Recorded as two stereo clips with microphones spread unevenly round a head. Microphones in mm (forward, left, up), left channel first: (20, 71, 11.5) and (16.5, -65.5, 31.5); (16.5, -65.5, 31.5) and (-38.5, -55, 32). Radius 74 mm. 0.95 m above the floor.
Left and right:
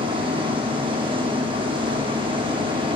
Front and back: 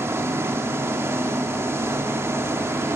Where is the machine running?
150° right, 2 m.